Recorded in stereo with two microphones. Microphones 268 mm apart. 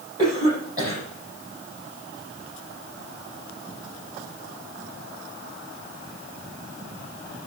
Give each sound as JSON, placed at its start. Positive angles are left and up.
{"t": 0.2, "sound": "a cough", "side_deg": -15, "distance_m": 9.0}